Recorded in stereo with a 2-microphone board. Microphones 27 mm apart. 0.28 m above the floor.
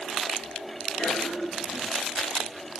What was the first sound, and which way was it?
A cough, 55° left (ahead or behind).